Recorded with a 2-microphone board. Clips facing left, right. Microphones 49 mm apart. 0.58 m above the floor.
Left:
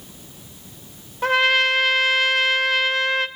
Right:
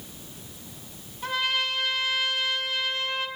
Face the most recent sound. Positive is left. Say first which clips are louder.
# left 10 dB
turn(degrees=75)  # may be behind; listen again after turning